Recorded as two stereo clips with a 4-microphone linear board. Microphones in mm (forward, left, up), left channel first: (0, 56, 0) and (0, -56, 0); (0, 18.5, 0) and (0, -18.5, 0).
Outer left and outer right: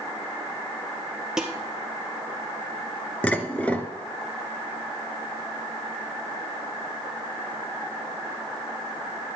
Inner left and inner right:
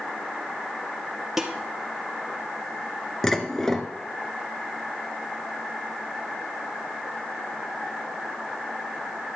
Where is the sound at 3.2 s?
10° left (ahead or behind), 0.9 m.